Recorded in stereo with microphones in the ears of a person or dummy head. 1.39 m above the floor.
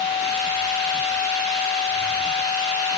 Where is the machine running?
20° left (ahead or behind), 2.0 m.